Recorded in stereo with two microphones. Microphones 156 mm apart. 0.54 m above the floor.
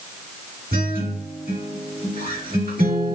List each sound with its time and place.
0.7 s a guitar: 70° right (ahead or behind), 1.5 m